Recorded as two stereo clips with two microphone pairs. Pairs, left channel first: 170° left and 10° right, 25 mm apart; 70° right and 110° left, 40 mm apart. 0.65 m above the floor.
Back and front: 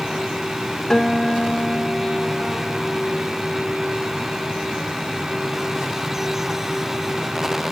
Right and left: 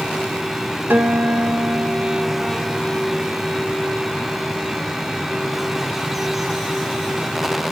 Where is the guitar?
95° left, 1.8 m.